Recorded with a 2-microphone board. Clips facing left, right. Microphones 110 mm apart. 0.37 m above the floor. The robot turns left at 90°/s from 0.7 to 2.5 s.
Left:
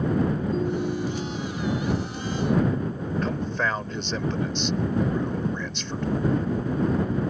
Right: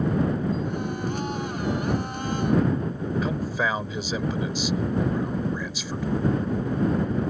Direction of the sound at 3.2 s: 5° right (ahead or behind).